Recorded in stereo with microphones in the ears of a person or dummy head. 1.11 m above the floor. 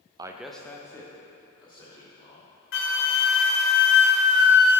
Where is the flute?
60° left (ahead or behind), 0.8 m.